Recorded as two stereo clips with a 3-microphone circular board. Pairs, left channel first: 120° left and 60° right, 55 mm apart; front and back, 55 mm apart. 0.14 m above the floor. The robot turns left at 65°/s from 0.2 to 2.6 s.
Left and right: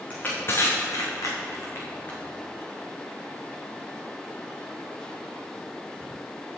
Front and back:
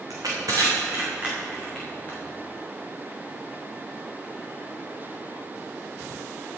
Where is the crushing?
175° right, 3 m; by 2.2 s 55° left, 3 m.